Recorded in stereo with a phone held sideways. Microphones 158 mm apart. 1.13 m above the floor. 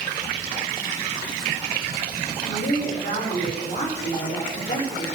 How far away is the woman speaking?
About 3.5 m.